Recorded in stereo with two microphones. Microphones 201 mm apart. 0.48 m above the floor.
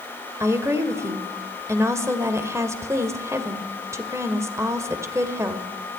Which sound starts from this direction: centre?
A woman speaking, at 0.4 s.